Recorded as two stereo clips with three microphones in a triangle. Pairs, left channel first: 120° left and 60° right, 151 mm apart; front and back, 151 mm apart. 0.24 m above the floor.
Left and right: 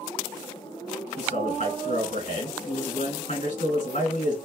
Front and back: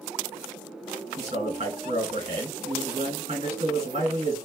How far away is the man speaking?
About 2.0 m.